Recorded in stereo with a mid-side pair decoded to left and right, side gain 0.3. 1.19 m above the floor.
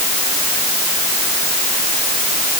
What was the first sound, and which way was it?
Only background noise.